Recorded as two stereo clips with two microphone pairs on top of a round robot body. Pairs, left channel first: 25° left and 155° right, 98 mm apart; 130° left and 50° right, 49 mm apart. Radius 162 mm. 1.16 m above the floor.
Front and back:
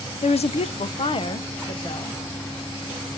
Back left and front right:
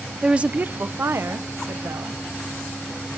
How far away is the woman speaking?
About 0.6 m.